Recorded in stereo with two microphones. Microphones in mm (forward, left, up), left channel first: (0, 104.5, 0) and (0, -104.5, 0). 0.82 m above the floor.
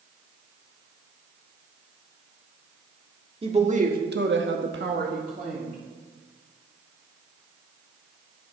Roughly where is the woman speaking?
Right.